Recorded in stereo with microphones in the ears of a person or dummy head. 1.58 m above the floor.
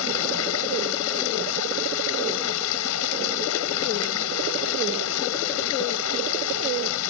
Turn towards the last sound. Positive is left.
turn(degrees=70)  # may be behind; listen again after turning